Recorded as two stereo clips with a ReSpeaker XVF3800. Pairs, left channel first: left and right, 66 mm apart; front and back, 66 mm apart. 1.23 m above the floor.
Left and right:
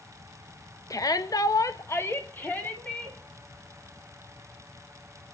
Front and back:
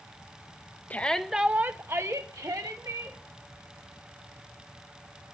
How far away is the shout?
About 1.2 m.